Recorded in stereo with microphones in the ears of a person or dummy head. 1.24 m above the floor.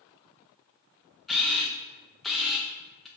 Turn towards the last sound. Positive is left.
turn(degrees=0)  # may be behind; listen again after turning